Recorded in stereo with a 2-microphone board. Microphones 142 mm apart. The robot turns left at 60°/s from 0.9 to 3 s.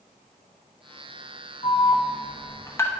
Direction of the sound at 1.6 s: 45° left (ahead or behind).